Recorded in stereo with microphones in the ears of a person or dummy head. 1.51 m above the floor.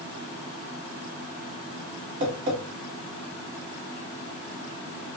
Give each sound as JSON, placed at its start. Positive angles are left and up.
{"t": 2.2, "sound": "tapping", "side_deg": -40, "distance_m": 1.7}